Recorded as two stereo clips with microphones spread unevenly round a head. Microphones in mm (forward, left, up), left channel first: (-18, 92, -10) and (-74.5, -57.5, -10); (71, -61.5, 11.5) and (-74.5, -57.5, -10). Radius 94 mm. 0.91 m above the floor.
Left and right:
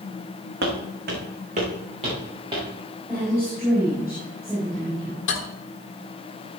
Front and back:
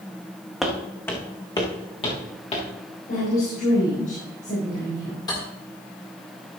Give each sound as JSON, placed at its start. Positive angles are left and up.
{"t": 0.6, "sound": "footsteps", "azimuth_deg": -90, "distance_m": 2.5}
{"t": 3.1, "sound": "a woman speaking", "azimuth_deg": -30, "distance_m": 4.0}
{"t": 5.3, "sound": "cutlery clinking", "azimuth_deg": 70, "distance_m": 1.5}